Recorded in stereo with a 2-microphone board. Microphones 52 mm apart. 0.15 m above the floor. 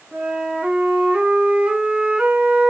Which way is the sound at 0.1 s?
35° right (ahead or behind).